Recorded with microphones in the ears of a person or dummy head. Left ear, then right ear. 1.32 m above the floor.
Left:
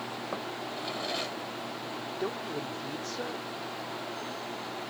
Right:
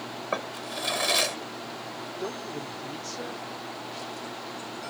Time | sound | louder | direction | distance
0.3 | a drawer | right 8 dB | 40° right (ahead or behind) | ?
2.2 | a man speaking | left 1 dB | 5° left (ahead or behind) | ?